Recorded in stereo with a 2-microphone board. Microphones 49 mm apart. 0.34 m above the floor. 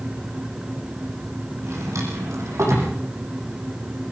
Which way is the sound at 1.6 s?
80° right.